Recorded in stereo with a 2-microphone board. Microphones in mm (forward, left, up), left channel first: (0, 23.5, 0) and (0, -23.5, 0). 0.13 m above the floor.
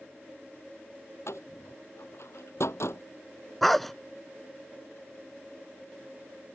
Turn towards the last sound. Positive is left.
turn(degrees=5)  # may be behind; listen again after turning